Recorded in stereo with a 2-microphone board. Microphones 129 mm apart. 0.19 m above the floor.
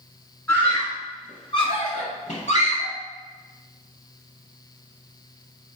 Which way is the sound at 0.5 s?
15° left (ahead or behind).